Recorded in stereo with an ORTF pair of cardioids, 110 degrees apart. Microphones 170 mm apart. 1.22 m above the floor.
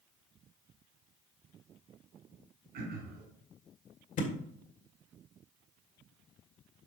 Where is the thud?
50° left, 1.8 m.